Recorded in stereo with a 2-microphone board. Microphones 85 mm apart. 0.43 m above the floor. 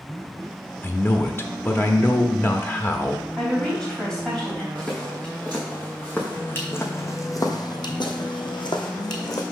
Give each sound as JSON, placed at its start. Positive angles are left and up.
{"t": 0.8, "sound": "a man speaking", "side_deg": 30, "distance_m": 0.8}
{"t": 3.4, "sound": "a woman speaking", "side_deg": 5, "distance_m": 2.5}
{"t": 4.8, "sound": "footsteps", "side_deg": 10, "distance_m": 2.5}